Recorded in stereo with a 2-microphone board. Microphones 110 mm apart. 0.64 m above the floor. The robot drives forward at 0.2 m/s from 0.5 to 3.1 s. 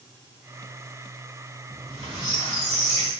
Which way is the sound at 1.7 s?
75° right (ahead or behind).